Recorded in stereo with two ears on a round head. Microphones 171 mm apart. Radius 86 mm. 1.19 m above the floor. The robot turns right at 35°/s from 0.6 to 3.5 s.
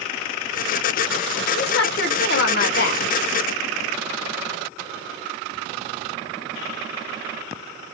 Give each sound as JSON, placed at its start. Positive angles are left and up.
{"t": 1.6, "sound": "a woman speaking", "azimuth_deg": 65, "distance_m": 0.9}